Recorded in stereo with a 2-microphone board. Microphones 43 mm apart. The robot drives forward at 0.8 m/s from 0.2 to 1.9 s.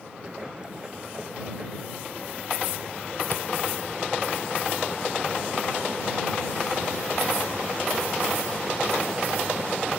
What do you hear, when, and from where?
3.3 s a camera shutter: 60° left (ahead or behind)